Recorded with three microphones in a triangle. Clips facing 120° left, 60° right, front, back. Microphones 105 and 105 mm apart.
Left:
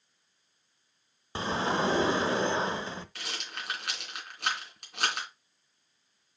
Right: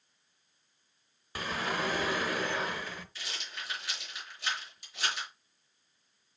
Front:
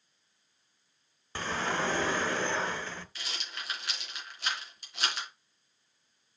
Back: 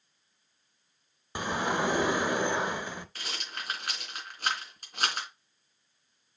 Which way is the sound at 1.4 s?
125° left.